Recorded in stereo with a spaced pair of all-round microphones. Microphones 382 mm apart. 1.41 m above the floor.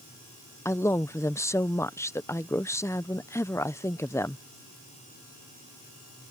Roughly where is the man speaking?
Centre.